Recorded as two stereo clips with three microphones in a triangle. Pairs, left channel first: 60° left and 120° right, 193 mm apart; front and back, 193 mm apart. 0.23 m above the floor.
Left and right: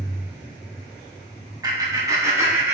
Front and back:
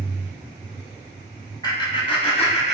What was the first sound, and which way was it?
Laughter, 55° right.